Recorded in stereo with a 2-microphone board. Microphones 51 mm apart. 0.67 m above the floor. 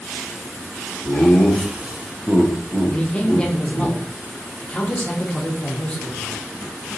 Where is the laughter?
10° left (ahead or behind), 0.8 m; by 3.9 s 40° right (ahead or behind), 1.4 m.